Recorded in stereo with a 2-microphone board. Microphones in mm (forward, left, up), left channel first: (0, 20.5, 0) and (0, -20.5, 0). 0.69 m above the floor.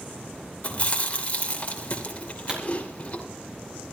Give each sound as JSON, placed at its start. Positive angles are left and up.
{"t": 0.6, "sound": "chewing", "side_deg": 35, "distance_m": 2.5}
{"t": 2.5, "sound": "a pop", "side_deg": -20, "distance_m": 4.0}